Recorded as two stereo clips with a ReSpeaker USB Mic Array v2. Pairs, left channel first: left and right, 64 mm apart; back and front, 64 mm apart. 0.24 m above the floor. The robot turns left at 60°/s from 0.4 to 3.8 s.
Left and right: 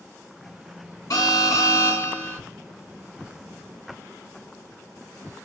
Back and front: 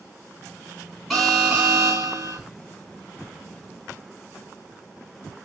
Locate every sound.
1.1 s an alarm: 90° left, 2.5 m; by 2.4 s 10° left, 2.5 m